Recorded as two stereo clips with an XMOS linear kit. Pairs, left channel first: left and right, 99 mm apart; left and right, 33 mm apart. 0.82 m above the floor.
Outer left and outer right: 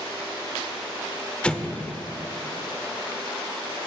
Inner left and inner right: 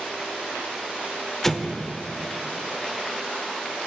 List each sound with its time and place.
1.4 s an explosion: 10° left (ahead or behind), 0.5 m